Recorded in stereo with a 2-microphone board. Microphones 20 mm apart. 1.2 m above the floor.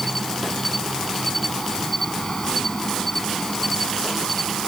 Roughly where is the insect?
Centre.